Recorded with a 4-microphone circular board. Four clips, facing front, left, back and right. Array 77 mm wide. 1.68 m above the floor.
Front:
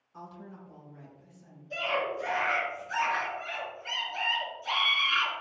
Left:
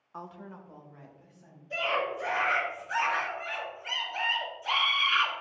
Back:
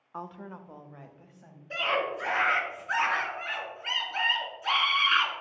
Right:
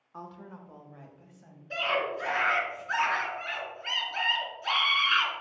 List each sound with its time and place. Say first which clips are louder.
0.1 s a woman speaking: left 1 dB, back 5 dB; 165° left, 0.6 m; by 1.6 s 170° right, 1.8 m
1.7 s a scream: even, back 2 dB; 150° right, 3 m